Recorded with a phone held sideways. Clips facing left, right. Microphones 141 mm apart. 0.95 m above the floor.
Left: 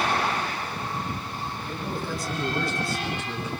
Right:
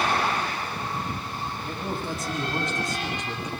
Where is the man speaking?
25° right (ahead or behind), 7 m; by 3.5 s 20° right (ahead or behind), 6.5 m.